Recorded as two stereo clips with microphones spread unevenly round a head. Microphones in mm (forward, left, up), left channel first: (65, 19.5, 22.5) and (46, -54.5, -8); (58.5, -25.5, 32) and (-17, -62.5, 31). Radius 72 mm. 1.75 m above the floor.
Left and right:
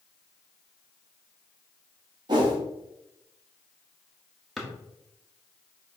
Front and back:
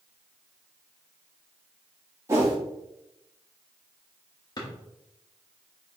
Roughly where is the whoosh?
Behind right.